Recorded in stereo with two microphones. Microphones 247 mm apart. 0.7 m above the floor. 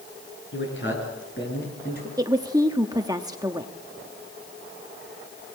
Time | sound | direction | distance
0.5 | a man speaking | 50° left (ahead or behind) | 8 m
2.2 | a woman speaking | 15° right (ahead or behind) | 1.0 m